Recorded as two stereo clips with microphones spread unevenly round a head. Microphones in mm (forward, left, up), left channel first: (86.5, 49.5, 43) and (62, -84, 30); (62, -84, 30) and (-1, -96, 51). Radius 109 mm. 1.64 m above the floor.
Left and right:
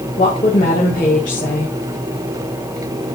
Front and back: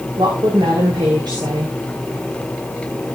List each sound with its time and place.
0.2 s a woman speaking: 135° left, 2 m